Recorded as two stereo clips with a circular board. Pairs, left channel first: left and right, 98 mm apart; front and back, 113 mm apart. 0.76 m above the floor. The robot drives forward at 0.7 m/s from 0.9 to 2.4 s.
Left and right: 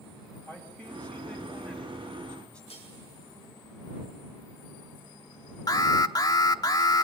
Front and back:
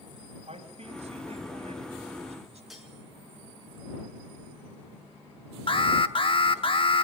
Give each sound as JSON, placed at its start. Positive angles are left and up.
{"t": 0.5, "sound": "a man speaking", "azimuth_deg": 165, "distance_m": 4.0}
{"t": 2.7, "sound": "cutlery clinking", "azimuth_deg": 90, "distance_m": 6.5}
{"t": 5.7, "sound": "an alarm", "azimuth_deg": 40, "distance_m": 0.9}